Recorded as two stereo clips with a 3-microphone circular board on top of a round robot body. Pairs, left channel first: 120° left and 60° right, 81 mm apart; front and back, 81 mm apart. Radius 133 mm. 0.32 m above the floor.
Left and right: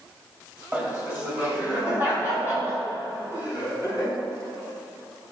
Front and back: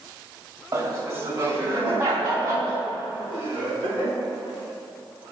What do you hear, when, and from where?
0.7 s laughter: 130° right, 2.5 m; by 4.2 s 125° right, 5 m